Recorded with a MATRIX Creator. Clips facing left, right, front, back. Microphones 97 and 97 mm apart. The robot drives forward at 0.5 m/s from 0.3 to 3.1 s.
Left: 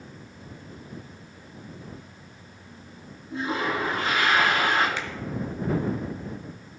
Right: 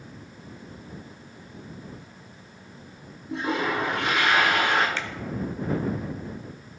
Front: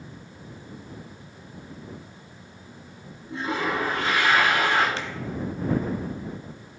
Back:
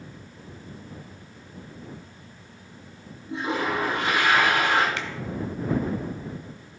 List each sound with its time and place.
3.3 s a toilet flushing: 110° right, 2 m
5.0 s a finger snap: 20° left, 1.0 m